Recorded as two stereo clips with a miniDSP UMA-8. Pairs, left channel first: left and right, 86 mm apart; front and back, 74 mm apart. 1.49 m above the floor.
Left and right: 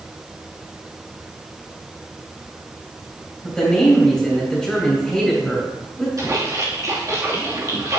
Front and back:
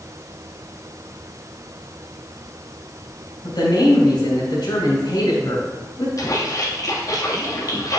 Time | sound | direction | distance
3.4 | a woman speaking | 10° left | 3.5 m
6.2 | a splash | 40° right | 2 m